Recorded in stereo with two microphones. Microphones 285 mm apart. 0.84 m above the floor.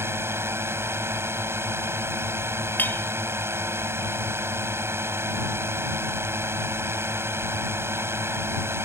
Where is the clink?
5° left (ahead or behind).